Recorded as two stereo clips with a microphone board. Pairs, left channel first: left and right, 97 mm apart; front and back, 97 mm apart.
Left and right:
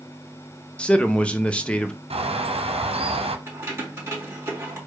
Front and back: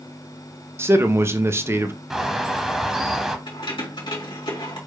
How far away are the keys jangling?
About 2 m.